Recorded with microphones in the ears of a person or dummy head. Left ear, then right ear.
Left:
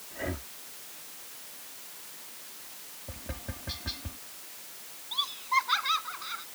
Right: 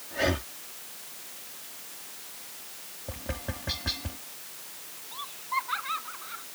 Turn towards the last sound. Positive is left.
turn(degrees=85)